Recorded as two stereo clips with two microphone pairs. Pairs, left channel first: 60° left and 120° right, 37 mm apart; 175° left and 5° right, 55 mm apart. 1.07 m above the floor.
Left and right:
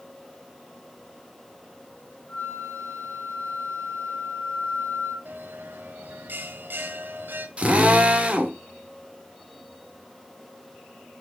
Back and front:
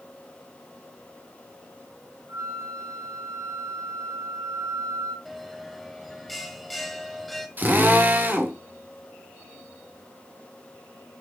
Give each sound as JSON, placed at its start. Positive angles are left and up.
{"t": 2.3, "sound": "a flute", "azimuth_deg": 20, "distance_m": 3.0}
{"t": 5.2, "sound": "a bell", "azimuth_deg": -95, "distance_m": 1.7}
{"t": 7.6, "sound": "a drill", "azimuth_deg": -60, "distance_m": 2.0}